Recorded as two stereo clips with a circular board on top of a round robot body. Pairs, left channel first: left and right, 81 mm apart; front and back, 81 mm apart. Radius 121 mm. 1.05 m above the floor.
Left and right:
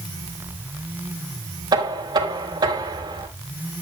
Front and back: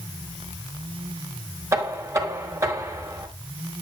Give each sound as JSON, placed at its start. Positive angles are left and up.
{"t": 1.7, "sound": "knocking", "azimuth_deg": -125, "distance_m": 3.0}